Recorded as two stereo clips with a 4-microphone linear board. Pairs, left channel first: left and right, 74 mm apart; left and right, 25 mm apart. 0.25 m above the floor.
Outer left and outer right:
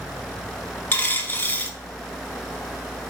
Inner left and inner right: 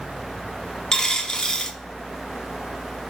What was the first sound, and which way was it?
A dropped coin, 30° left (ahead or behind).